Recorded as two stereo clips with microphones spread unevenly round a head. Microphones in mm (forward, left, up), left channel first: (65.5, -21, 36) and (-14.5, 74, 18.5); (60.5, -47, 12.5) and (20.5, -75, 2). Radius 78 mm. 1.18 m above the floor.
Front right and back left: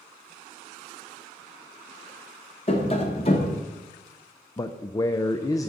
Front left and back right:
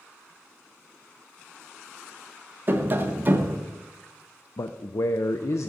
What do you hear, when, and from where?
2.7 s tapping: 95° right, 1.0 m
4.6 s a man speaking: 15° left, 0.5 m